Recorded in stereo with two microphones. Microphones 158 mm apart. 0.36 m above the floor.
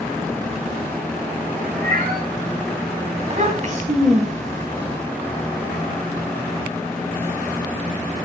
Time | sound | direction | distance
1.7 | a cat meowing | 50° right (ahead or behind) | 4 m
3.2 | a child speaking | 50° right (ahead or behind) | 1.9 m